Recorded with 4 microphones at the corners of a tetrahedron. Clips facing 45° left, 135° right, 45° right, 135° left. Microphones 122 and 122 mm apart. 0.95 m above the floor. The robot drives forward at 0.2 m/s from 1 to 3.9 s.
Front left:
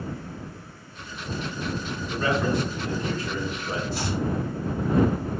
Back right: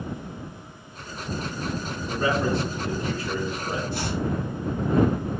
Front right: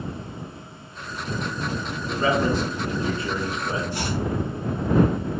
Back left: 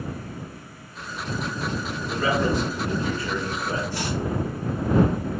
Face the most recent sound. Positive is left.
turn(degrees=-115)